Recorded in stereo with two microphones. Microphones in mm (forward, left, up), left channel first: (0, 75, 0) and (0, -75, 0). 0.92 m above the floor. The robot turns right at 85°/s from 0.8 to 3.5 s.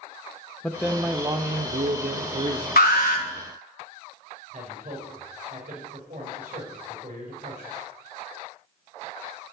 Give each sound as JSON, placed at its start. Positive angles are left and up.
{"t": 0.6, "sound": "a man speaking", "azimuth_deg": 170, "distance_m": 0.6}
{"t": 2.8, "sound": "an alarm", "azimuth_deg": 80, "distance_m": 1.2}
{"t": 4.5, "sound": "a man speaking", "side_deg": -70, "distance_m": 4.0}